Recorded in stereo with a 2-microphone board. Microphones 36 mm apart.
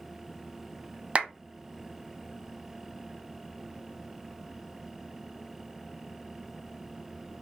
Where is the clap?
35° right (ahead or behind), 0.9 m.